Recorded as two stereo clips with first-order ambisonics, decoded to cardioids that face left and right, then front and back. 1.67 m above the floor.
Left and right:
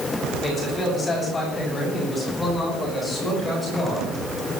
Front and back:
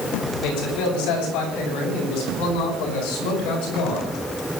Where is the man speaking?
15° left, 8 m; by 4.0 s 5° left, 12.5 m.